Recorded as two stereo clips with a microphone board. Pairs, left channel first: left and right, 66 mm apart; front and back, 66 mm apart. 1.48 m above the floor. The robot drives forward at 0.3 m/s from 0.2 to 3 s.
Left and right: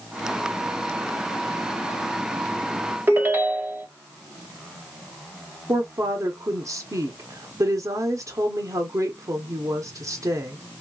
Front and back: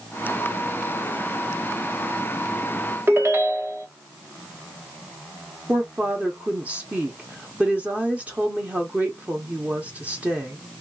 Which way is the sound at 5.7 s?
115° right.